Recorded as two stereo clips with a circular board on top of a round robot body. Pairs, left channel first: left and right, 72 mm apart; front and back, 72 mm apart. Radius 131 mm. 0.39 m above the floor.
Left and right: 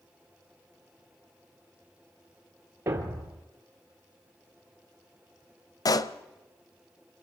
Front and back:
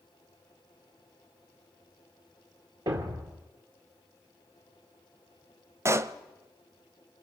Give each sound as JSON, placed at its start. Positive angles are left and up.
{"t": 2.9, "sound": "a thud", "azimuth_deg": -150, "distance_m": 3.0}
{"t": 5.8, "sound": "a pop", "azimuth_deg": 130, "distance_m": 0.8}